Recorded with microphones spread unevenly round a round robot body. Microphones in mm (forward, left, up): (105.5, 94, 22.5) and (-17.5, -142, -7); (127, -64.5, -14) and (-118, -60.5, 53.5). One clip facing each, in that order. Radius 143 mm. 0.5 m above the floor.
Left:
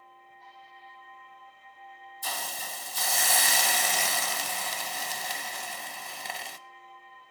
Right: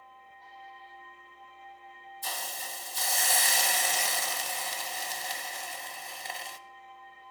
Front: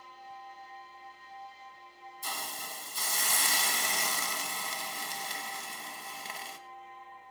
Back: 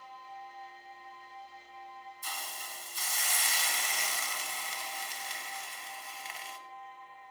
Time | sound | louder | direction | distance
2.2 | a hiss | left 2 dB, front 6 dB | 60° left | 0.6 m